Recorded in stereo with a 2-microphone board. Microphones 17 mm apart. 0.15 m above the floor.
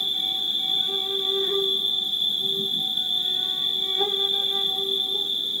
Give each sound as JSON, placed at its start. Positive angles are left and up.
{"t": 0.0, "sound": "an insect", "side_deg": -30, "distance_m": 1.9}